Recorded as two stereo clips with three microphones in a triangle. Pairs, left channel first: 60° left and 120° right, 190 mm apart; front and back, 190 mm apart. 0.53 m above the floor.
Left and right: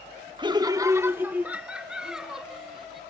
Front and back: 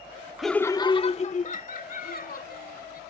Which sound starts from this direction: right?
Laughter, at 0.4 s.